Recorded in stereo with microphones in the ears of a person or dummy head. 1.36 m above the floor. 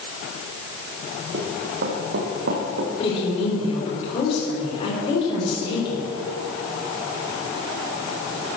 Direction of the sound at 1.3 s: 55° right (ahead or behind).